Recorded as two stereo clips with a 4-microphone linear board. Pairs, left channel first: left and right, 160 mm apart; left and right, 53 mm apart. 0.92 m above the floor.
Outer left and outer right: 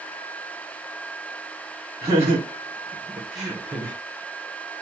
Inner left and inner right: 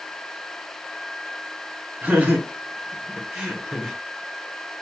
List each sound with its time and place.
2.0 s laughter: 35° right (ahead or behind), 1.6 m; by 4.0 s 10° right (ahead or behind), 0.9 m